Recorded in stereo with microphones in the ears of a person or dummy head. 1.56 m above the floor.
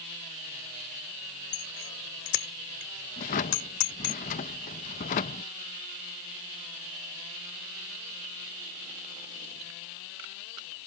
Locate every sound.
1.5 s a bicycle bell: 80° left; by 4.2 s 60° left (ahead or behind)
3.2 s a drawer: 30° left (ahead or behind)